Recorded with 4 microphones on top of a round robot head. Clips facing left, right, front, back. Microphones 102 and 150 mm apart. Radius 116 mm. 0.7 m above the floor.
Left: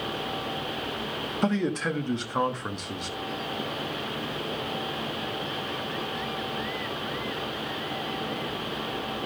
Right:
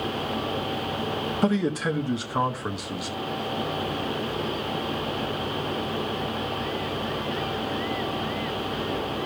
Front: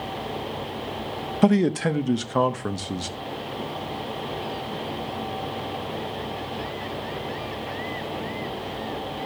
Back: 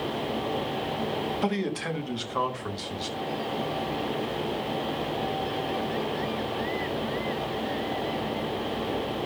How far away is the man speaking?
About 1.3 m.